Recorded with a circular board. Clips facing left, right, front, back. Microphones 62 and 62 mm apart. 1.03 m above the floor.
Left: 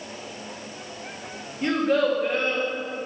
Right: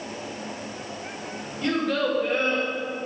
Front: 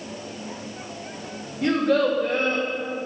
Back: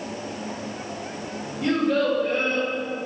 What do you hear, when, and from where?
1.6 s a child speaking: 30° left, 1.5 m; by 2.7 s 20° right, 1.2 m